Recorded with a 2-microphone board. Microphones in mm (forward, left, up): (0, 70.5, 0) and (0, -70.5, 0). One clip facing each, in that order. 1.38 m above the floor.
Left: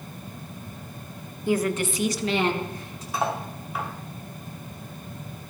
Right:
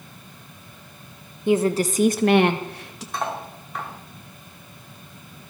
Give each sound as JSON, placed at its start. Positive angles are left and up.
{"t": 1.5, "sound": "a woman speaking", "side_deg": -20, "distance_m": 1.0}
{"t": 3.1, "sound": "cutlery clinking", "side_deg": 5, "distance_m": 1.9}